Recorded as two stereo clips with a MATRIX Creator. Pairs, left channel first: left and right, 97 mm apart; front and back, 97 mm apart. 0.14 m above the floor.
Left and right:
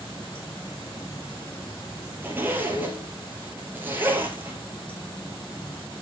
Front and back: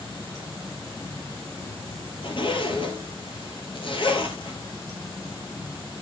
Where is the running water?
50° left, 6.5 m.